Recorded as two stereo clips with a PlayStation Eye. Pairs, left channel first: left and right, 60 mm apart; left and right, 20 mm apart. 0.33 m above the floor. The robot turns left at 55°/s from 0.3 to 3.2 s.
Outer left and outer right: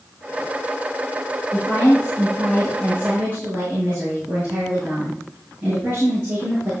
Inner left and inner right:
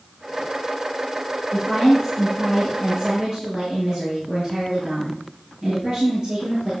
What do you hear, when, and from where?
1.5 s a woman speaking: 55° left, 6 m; by 6.7 s 35° right, 6 m